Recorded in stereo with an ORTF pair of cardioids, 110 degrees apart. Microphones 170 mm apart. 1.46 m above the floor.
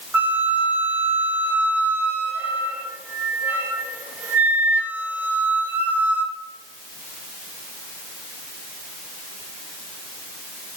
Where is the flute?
10° right, 1.1 m.